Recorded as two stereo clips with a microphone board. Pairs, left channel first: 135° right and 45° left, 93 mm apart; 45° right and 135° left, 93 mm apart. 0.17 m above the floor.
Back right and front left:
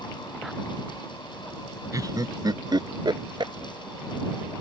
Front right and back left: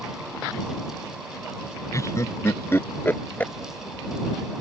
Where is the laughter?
Straight ahead; by 3.5 s 25° left.